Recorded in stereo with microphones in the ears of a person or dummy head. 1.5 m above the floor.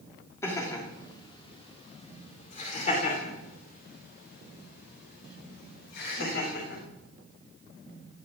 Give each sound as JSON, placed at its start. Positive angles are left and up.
{"t": 0.4, "sound": "laughter", "side_deg": 10, "distance_m": 3.5}